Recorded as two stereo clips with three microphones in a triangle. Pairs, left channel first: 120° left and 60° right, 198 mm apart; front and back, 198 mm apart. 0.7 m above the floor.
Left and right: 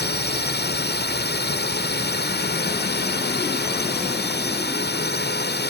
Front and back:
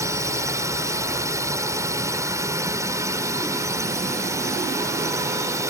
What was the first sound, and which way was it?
A drone, 110° left.